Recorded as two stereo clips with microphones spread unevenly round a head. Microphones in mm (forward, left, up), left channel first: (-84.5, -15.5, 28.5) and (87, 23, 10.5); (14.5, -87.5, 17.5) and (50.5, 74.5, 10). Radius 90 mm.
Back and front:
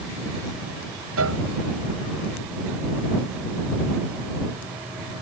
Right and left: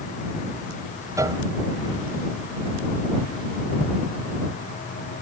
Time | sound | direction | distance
1.2 | a piano | 5° left | ?